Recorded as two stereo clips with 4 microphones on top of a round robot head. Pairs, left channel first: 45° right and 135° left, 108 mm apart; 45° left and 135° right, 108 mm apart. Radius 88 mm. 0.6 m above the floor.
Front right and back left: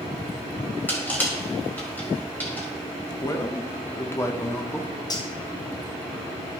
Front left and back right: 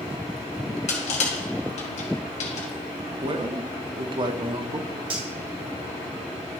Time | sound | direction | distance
0.9 | crushing | 30° left | 1.9 m
3.2 | a man speaking | 105° right | 1.1 m
5.1 | cutlery clinking | 95° right | 1.7 m